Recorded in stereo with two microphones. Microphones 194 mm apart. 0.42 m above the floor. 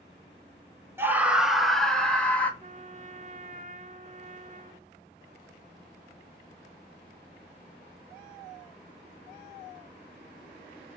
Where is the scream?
10° right (ahead or behind), 1.4 m; by 2.5 s 10° left (ahead or behind), 3 m.